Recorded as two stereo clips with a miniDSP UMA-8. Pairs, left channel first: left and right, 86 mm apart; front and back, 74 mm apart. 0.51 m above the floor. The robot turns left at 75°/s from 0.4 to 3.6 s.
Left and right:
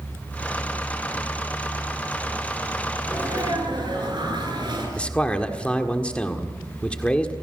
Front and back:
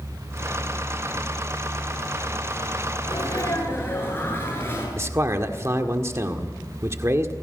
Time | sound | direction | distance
3.0 | a sneeze | 20° right | 10 m
5.0 | a man speaking | 160° left | 1.6 m